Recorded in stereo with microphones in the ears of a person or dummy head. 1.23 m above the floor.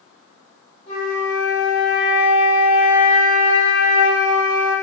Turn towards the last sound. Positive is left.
turn(degrees=60)  # may be behind; listen again after turning